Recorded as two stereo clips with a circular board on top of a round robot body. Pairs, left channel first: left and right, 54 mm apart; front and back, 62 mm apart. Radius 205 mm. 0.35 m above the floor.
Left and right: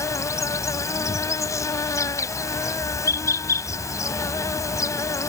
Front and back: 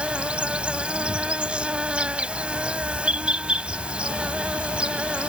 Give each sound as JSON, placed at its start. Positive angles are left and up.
{"t": 0.0, "sound": "an insect", "azimuth_deg": 105}